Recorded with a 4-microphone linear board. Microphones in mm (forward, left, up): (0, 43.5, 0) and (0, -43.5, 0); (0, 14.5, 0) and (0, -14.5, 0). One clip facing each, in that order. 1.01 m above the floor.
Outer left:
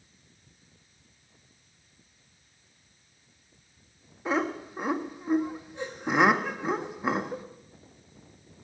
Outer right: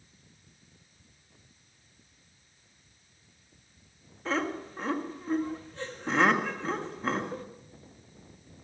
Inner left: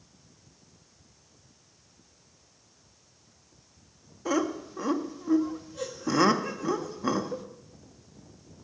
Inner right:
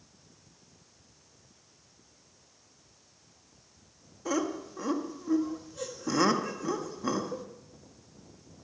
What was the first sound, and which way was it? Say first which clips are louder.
Laughter: outer left 3 dB, inner left 3 dB; 15° left (ahead or behind).